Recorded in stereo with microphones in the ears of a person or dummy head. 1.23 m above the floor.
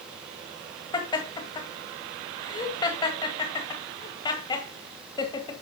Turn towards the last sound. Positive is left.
turn(degrees=20)  # may be behind; listen again after turning